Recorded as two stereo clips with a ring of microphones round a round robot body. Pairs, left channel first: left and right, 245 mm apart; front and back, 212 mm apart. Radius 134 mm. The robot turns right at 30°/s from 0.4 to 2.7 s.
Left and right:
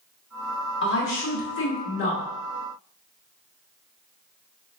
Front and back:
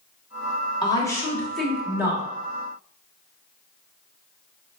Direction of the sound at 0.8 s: 65° left.